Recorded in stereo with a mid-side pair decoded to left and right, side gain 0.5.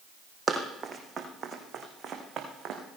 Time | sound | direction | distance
0.5 | running footsteps | 35° right | 3.5 m